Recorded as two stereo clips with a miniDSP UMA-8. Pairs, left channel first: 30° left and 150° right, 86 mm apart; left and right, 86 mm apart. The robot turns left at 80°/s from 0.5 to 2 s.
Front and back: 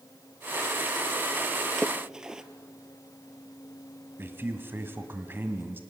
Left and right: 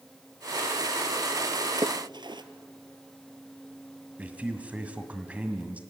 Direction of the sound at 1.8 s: 50° right.